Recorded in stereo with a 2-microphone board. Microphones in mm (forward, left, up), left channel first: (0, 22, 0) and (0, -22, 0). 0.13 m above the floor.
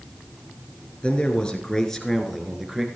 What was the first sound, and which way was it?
A man speaking, 25° left (ahead or behind).